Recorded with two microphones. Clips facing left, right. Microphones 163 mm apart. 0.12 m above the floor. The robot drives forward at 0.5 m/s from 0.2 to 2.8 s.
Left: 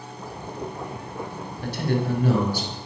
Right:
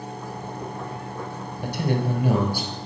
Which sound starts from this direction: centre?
A man speaking, at 1.6 s.